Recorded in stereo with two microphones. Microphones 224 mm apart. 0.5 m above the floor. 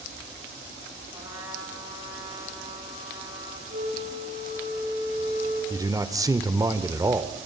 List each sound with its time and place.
1.1 s a trumpet: 20° right (ahead or behind), 8.5 m
3.7 s a flute: 75° right (ahead or behind), 8.5 m
5.7 s a man speaking: 15° right (ahead or behind), 1.4 m